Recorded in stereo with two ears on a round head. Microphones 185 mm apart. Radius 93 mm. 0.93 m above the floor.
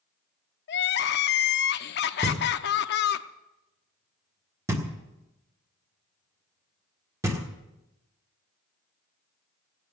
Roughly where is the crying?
Left.